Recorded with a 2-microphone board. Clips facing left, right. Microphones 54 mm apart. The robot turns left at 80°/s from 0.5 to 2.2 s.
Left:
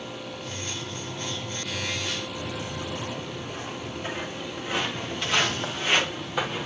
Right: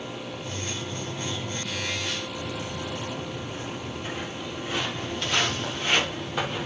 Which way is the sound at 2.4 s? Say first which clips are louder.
Even; 40° left (ahead or behind).